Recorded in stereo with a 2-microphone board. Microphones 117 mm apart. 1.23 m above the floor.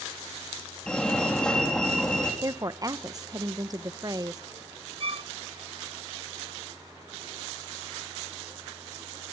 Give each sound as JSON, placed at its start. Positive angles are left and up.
{"t": 0.9, "sound": "a fire alarm", "side_deg": 5, "distance_m": 4.0}
{"t": 2.4, "sound": "a woman speaking", "side_deg": -30, "distance_m": 0.8}
{"t": 5.0, "sound": "a violin", "side_deg": -50, "distance_m": 0.5}